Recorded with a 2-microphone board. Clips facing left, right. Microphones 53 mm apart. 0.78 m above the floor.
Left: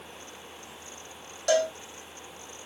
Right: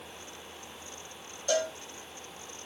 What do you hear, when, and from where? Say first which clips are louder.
1.5 s a cowbell: left 5 dB; 75° left (ahead or behind), 0.6 m